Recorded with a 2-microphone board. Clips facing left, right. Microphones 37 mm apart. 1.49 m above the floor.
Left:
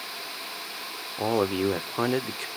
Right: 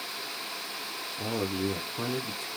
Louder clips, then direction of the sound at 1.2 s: Left 7 dB; 55° left (ahead or behind).